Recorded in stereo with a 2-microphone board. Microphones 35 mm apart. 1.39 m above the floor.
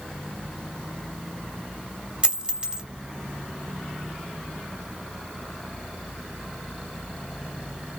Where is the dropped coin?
25° right (ahead or behind), 1.2 m.